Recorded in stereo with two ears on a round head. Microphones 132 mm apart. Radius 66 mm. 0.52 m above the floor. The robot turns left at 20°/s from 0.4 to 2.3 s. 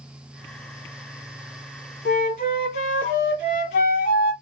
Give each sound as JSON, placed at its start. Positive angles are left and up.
{"t": 2.0, "sound": "a flute", "side_deg": 65, "distance_m": 1.4}